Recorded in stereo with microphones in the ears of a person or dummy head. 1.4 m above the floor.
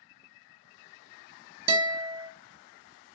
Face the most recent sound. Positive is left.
turn(degrees=-25)  # may be behind; listen again after turning